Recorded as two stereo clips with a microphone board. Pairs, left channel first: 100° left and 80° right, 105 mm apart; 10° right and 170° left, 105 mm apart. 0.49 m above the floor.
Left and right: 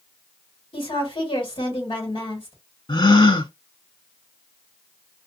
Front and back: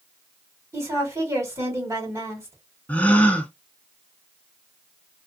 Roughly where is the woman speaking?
Left.